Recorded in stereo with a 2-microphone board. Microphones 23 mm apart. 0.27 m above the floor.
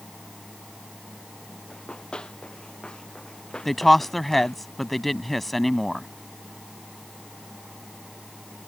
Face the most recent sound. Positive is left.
turn(degrees=5)  # may be behind; listen again after turning